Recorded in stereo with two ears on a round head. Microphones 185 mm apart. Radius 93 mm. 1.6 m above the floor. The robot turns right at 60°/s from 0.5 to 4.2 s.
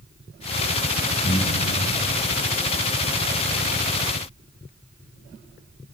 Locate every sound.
1.2 s breathing: 35° left (ahead or behind), 2.5 m; by 1.7 s 10° left (ahead or behind), 2.5 m